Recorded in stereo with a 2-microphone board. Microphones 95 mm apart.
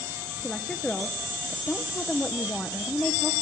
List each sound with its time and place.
0.4 s a woman speaking: 10° left (ahead or behind), 1.0 m